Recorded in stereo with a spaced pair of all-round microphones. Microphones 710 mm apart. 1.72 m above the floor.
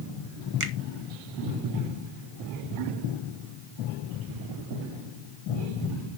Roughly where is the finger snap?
Right.